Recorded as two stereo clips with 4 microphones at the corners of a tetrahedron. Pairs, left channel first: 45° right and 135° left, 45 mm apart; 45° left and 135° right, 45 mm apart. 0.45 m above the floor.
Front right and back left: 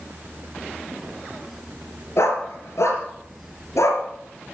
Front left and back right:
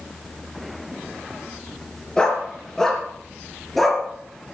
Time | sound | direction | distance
2.2 | a dog barking | 25° right | 3.5 m